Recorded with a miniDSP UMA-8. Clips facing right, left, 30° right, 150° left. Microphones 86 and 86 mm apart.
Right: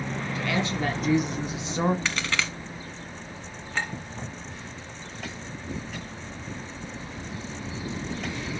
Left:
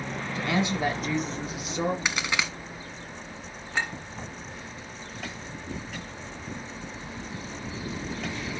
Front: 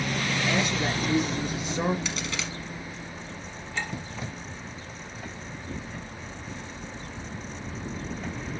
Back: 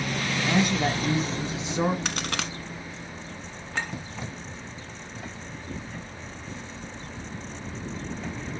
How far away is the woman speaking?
About 2 m.